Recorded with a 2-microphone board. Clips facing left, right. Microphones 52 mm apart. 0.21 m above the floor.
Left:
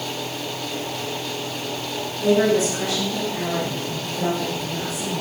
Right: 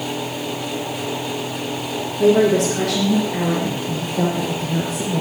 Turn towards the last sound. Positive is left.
turn(degrees=-35)  # may be behind; listen again after turning